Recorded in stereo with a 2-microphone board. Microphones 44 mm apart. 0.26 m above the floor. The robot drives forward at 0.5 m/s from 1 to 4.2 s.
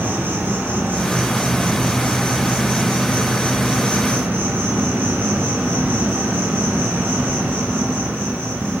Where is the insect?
60° right (ahead or behind), 3 m.